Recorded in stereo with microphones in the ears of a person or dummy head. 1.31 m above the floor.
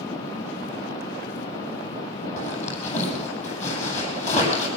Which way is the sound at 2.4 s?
40° left (ahead or behind).